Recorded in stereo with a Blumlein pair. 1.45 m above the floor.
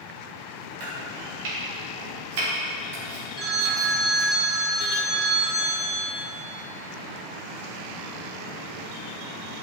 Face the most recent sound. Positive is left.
turn(degrees=-20)